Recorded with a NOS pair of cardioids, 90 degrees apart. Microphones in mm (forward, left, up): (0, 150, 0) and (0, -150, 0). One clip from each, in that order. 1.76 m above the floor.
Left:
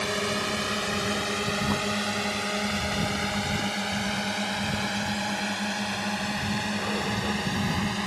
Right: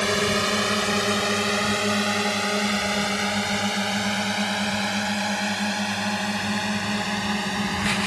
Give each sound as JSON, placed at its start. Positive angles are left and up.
{"t": 0.0, "sound": "a drone", "azimuth_deg": -45}